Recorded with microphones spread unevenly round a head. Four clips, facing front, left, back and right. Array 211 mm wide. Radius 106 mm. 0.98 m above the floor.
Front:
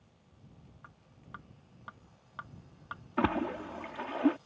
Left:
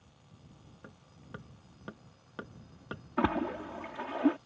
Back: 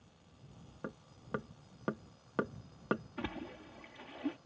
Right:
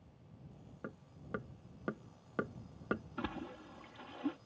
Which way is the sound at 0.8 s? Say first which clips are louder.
Right 6 dB, back 13 dB; 155° right.